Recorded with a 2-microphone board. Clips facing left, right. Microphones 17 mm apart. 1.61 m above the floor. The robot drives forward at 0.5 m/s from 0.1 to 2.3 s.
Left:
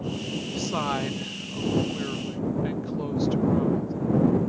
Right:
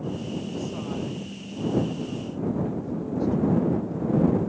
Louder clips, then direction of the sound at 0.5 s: Left 4 dB; 75° left (ahead or behind).